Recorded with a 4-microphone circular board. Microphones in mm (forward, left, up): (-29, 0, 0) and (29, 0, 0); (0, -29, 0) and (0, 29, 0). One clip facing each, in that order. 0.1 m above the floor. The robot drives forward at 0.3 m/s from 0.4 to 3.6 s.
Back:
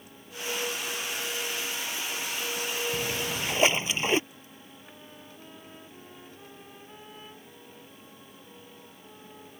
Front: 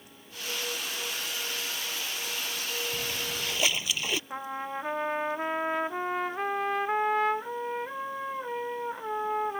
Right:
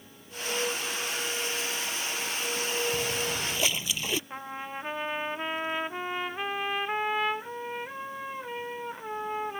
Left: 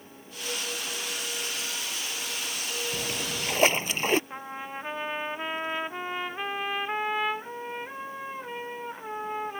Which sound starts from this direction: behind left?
A splash, at 2.9 s.